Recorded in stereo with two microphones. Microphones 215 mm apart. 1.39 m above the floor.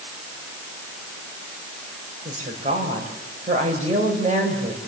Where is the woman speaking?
35° right (ahead or behind), 5.5 m.